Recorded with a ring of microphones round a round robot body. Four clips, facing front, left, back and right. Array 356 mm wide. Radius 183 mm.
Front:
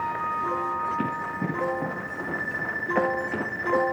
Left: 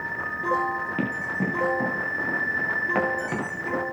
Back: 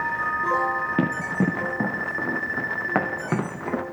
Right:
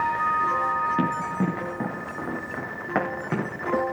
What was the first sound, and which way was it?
Running footsteps, 170° right.